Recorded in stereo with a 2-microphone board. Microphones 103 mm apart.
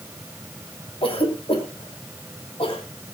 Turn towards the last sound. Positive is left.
turn(degrees=65)  # may be behind; listen again after turning